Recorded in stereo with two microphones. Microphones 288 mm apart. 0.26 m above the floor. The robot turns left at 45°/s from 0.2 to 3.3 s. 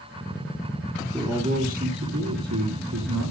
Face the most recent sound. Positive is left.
turn(degrees=-105)